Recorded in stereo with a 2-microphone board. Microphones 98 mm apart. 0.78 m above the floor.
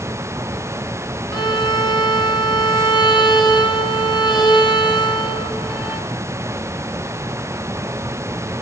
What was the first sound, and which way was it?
A violin, 50° left (ahead or behind).